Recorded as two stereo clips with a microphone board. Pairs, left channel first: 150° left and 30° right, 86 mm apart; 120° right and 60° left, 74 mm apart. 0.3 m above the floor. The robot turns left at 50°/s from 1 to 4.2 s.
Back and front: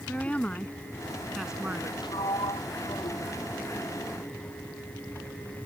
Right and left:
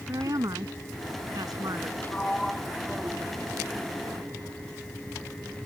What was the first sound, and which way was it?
A woman speaking, 75° left.